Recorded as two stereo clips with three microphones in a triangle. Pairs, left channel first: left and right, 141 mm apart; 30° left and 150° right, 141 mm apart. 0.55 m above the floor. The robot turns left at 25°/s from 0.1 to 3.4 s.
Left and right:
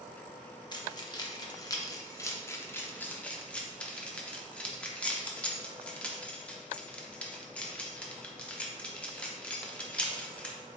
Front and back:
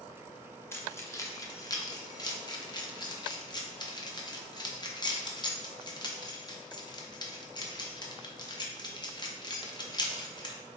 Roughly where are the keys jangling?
Left.